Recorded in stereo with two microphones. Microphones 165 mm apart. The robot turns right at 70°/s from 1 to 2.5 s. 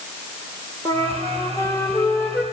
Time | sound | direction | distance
0.8 | a flute | 20° left (ahead or behind) | 1.4 m